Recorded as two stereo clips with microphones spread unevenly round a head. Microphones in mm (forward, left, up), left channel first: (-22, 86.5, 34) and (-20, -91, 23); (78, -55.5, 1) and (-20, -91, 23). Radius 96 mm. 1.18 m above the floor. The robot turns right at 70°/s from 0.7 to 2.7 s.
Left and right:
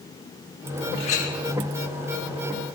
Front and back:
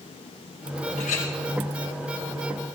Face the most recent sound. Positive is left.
turn(degrees=145)